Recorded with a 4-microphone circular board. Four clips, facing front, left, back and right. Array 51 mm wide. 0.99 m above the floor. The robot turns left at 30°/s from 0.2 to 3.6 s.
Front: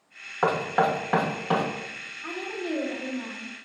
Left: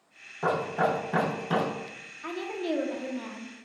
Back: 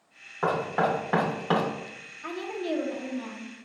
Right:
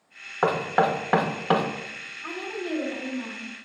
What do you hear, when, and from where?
0.4 s knocking: 65° right, 0.7 m; by 1.7 s 105° right, 0.7 m
2.2 s a woman speaking: 115° left, 0.8 m; by 3.6 s 75° left, 0.8 m